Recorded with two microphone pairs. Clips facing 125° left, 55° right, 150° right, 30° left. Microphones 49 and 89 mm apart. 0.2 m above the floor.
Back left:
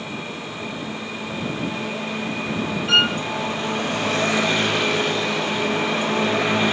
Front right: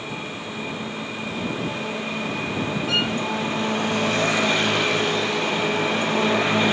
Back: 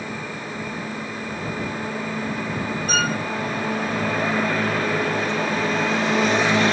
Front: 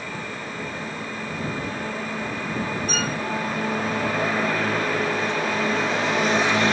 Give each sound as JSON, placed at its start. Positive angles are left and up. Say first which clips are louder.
{"t": 2.9, "sound": "a violin", "louder": "back left 7 dB, back 4 dB", "azimuth_deg": 170}